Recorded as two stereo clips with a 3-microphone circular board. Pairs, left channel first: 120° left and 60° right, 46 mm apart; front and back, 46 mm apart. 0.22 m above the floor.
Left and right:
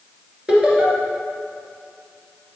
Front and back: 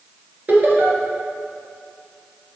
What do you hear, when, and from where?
0.5 s laughter: 130° right, 2.5 m